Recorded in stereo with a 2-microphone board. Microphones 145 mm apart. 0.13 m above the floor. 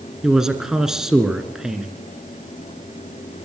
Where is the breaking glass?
I don't hear breaking glass.